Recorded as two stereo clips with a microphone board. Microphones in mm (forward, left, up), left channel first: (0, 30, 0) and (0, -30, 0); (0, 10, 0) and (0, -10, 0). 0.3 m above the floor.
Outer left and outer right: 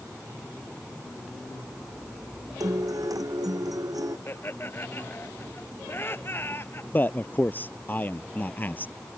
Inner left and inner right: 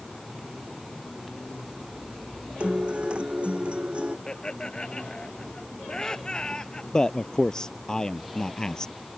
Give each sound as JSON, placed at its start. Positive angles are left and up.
{"t": 2.6, "sound": "a guitar", "side_deg": -90}
{"t": 4.3, "sound": "laughter", "side_deg": 40}
{"t": 6.9, "sound": "a man speaking", "side_deg": 30}